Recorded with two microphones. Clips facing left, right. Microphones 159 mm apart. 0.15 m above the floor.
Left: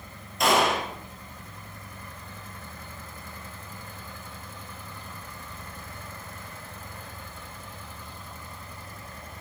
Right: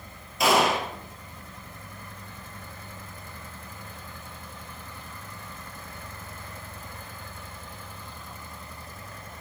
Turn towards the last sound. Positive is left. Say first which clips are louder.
# right 1 dB
turn(degrees=-5)  # may be behind; listen again after turning